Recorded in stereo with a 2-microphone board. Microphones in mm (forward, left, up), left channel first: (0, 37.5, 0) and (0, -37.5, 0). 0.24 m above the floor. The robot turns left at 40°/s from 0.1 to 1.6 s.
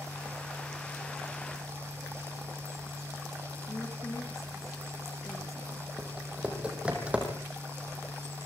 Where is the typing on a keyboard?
15° right (ahead or behind), 4.5 m.